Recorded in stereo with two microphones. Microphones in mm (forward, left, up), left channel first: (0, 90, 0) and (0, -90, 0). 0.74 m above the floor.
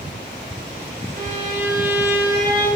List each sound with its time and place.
1.2 s a violin: 45° right (ahead or behind), 3 m